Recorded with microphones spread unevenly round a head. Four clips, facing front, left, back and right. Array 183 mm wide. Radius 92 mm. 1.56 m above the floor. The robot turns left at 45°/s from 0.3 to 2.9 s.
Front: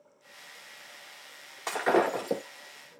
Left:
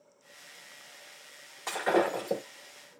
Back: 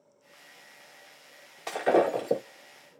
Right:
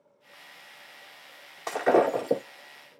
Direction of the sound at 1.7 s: 65° right.